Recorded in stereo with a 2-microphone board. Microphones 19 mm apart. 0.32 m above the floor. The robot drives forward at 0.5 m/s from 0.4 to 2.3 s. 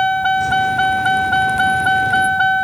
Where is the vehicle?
45° left (ahead or behind); by 2.6 s 40° left (ahead or behind).